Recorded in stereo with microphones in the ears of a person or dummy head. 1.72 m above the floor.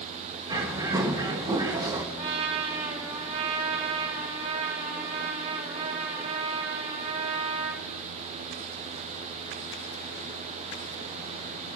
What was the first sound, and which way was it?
A bird, 20° right (ahead or behind).